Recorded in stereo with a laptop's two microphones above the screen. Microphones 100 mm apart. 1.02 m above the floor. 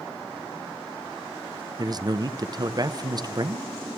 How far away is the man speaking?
About 0.7 m.